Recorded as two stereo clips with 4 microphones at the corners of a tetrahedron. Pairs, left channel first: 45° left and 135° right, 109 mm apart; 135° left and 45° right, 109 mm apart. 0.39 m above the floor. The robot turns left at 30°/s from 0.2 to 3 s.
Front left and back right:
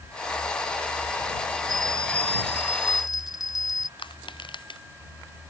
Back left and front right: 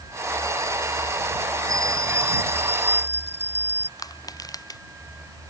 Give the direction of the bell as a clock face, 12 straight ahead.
6 o'clock.